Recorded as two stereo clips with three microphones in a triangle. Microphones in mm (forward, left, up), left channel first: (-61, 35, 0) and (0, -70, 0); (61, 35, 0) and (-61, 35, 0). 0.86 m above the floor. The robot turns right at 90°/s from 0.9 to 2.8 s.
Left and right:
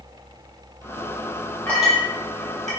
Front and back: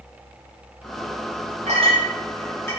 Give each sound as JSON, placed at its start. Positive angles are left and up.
{"t": 1.7, "sound": "a clink", "azimuth_deg": -165, "distance_m": 0.8}